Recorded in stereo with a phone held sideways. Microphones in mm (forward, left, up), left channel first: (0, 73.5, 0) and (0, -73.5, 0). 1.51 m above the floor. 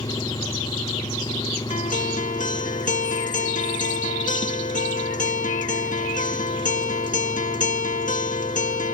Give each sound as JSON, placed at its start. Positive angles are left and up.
{"t": 0.0, "sound": "an engine running", "side_deg": 30}
{"t": 1.7, "sound": "a guitar", "side_deg": 60}